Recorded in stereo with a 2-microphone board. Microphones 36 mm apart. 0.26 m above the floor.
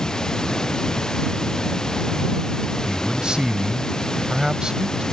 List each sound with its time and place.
0.0 s running water: 20° left (ahead or behind)
2.9 s a man speaking: 20° right (ahead or behind)